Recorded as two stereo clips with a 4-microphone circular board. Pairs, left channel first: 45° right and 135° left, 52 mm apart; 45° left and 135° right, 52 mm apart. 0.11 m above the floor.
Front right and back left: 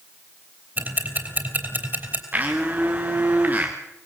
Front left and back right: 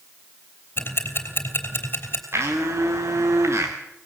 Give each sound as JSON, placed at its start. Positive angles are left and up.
{"t": 0.8, "sound": "ticking", "azimuth_deg": 85, "distance_m": 3.0}
{"t": 2.3, "sound": "a blender", "azimuth_deg": -165, "distance_m": 3.5}